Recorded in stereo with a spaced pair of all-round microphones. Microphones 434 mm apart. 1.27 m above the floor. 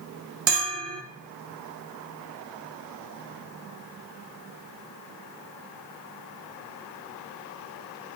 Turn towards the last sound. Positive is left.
turn(degrees=-80)